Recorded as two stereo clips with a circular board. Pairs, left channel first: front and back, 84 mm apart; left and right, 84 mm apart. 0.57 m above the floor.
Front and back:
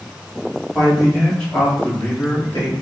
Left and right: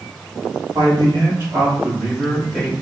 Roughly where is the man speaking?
Right.